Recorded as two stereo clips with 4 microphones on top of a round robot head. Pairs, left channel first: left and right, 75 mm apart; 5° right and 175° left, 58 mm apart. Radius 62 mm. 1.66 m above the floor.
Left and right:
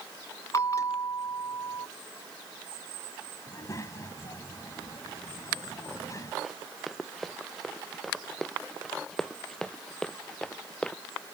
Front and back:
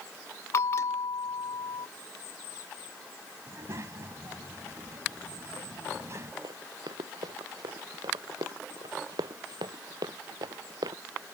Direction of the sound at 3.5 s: 140° left.